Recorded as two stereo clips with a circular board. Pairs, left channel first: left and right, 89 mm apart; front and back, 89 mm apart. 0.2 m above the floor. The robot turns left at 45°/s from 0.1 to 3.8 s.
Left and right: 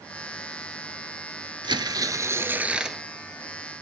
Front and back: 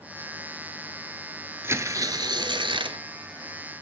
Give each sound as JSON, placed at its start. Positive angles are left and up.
{"t": 1.6, "sound": "tearing paper", "azimuth_deg": -120, "distance_m": 0.8}